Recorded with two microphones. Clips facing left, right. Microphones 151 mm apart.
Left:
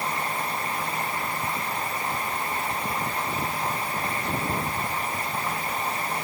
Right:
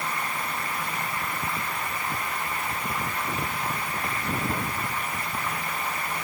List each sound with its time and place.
Only background noise.